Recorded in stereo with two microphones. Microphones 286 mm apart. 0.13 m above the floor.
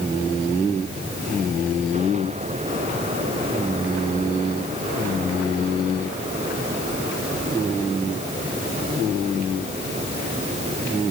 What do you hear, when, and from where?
Only background noise.